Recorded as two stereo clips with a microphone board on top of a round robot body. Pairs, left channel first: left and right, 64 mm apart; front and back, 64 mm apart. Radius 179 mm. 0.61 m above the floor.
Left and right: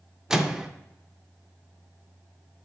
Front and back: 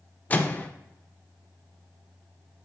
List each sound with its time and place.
0.3 s a microwave: 20° right, 0.6 m